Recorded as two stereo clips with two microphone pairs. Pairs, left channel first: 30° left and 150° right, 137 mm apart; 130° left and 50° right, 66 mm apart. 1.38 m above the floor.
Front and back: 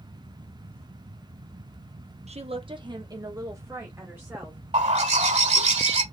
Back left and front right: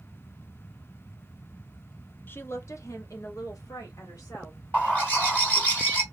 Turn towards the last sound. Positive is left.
turn(degrees=-175)